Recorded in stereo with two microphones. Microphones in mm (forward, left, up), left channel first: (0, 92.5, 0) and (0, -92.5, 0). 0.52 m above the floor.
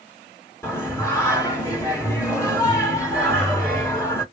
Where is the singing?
15° left (ahead or behind), 1.7 m.